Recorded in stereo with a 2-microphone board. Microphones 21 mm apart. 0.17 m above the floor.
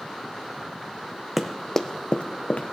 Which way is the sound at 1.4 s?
10° right (ahead or behind).